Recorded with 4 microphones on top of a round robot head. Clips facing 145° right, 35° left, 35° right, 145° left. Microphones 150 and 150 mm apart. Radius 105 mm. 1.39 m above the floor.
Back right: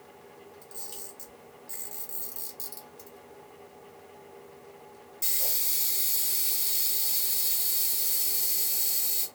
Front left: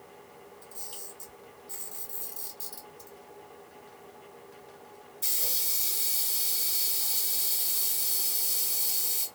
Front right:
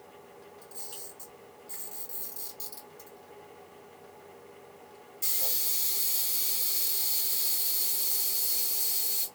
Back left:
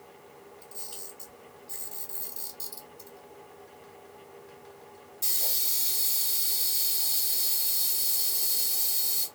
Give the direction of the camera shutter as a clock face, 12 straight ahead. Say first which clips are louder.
Back right 1 dB, even; 4 o'clock.